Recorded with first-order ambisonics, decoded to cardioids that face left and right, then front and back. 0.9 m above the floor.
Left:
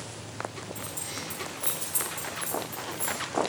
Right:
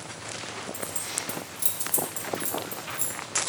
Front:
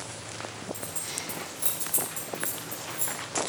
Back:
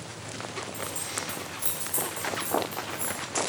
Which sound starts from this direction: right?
Keys jangling, at 0.7 s.